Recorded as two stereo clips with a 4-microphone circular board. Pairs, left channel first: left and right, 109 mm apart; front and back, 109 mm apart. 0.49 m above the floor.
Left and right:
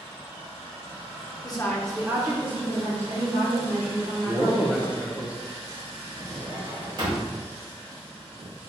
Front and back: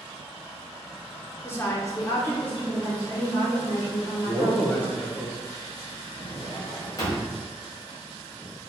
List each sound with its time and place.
1.4 s a woman speaking: 60° left, 1.0 m; by 4.9 s 85° right, 4 m
4.0 s a man speaking: 35° right, 0.7 m
6.2 s a drawer: 50° right, 1.4 m